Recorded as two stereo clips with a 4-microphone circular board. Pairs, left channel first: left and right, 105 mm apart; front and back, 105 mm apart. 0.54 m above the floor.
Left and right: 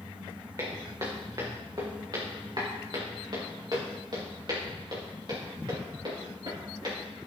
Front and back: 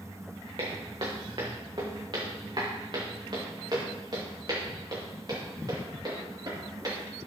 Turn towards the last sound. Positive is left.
turn(degrees=-130)